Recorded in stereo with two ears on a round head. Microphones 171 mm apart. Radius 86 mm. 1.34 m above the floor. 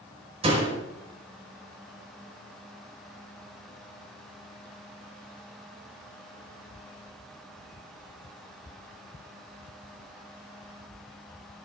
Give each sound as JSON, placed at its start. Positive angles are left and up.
{"t": 0.4, "sound": "a door slam", "side_deg": -30, "distance_m": 5.5}